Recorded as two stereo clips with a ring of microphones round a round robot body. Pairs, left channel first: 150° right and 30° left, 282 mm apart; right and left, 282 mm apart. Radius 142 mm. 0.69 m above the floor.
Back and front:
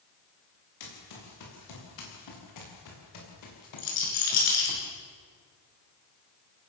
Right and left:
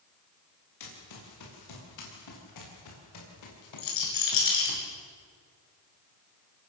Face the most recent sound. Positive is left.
turn(degrees=-110)